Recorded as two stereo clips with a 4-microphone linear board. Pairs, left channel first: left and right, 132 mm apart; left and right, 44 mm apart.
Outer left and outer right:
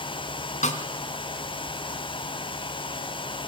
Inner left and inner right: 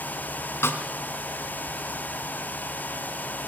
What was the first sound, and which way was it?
A snare drum, 65° left (ahead or behind).